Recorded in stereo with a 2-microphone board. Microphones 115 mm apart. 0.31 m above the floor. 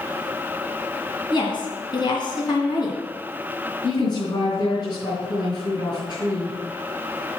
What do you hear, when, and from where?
1.3 s a woman speaking: 40° left (ahead or behind), 2.5 m
3.8 s a woman speaking: 35° left (ahead or behind), 3.5 m